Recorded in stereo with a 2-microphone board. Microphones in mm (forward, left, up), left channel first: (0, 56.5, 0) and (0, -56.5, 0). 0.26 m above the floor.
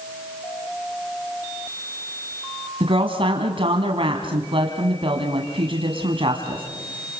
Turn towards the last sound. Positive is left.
turn(degrees=-55)  # may be behind; listen again after turning